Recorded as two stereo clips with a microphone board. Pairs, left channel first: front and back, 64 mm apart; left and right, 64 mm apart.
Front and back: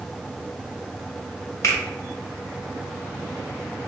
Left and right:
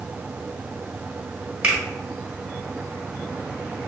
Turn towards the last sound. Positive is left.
turn(degrees=-30)